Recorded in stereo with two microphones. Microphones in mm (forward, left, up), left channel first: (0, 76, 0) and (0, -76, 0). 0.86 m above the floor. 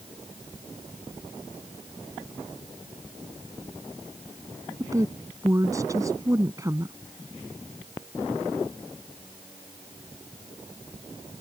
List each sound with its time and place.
4.8 s a woman speaking: 20° right (ahead or behind)